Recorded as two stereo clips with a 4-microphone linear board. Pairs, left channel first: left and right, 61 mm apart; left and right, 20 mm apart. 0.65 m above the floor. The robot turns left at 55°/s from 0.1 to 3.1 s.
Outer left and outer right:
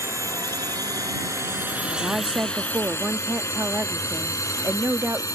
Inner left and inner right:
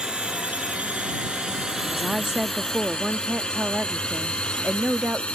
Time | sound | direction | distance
0.0 | a drone | 50° right (ahead or behind) | ?
1.9 | a woman speaking | 20° right | ?